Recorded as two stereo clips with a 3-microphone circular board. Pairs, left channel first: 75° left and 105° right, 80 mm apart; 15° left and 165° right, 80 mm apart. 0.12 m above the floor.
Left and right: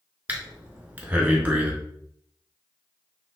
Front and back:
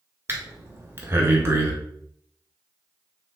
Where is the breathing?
150° right, 0.9 m.